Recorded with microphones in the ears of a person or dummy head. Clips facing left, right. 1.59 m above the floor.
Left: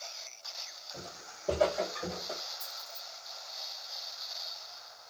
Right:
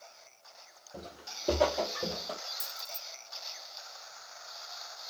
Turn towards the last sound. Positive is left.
turn(degrees=-45)  # may be behind; listen again after turning